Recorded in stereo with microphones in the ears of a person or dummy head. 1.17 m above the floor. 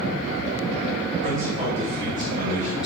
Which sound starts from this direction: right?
A man speaking, at 1.2 s.